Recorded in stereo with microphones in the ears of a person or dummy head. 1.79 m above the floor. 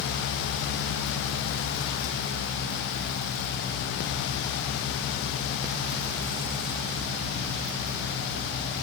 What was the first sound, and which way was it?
Only background noise.